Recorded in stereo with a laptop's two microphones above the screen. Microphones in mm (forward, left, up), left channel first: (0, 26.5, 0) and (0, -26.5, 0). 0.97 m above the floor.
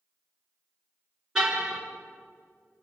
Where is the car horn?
15° right (ahead or behind), 6.5 m.